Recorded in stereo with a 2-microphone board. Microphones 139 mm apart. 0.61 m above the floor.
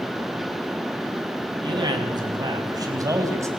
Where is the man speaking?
30° right (ahead or behind), 5 m; by 3.5 s 20° right (ahead or behind), 3.5 m.